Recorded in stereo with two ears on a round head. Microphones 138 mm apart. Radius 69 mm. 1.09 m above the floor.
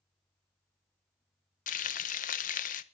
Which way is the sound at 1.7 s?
55° left (ahead or behind).